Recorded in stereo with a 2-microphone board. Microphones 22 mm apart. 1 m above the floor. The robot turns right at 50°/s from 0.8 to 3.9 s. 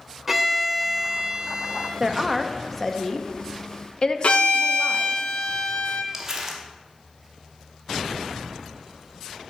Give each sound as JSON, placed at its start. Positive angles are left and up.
{"t": 0.3, "sound": "a violin", "azimuth_deg": -165, "distance_m": 0.7}
{"t": 2.0, "sound": "a woman speaking", "azimuth_deg": -35, "distance_m": 0.5}
{"t": 4.2, "sound": "a violin", "side_deg": 65, "distance_m": 0.5}
{"t": 6.1, "sound": "crumpling", "side_deg": -20, "distance_m": 1.0}